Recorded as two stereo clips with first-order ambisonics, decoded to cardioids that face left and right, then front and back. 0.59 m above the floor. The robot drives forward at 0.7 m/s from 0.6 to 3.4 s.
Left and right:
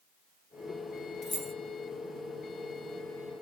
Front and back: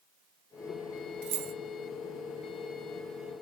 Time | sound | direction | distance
1.2 | keys jangling | straight behind | 1.0 m